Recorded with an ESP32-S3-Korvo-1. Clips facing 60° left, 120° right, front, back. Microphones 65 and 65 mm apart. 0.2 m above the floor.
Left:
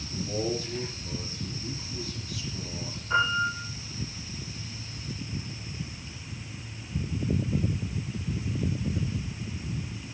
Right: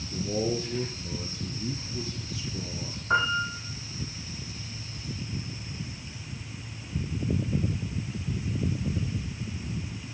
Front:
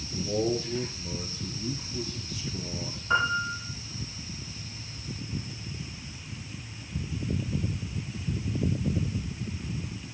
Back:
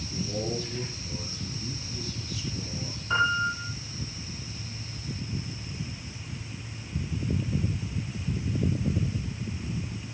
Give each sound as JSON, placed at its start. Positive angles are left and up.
{"t": 0.1, "sound": "a man speaking", "azimuth_deg": -65, "distance_m": 4.0}
{"t": 3.1, "sound": "a piano", "azimuth_deg": -80, "distance_m": 8.5}